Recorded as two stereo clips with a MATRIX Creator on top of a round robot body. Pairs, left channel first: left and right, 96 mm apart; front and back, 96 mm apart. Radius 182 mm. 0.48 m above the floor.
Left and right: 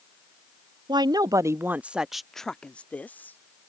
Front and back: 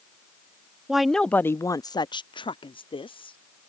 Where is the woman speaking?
100° right; by 3.4 s 20° left.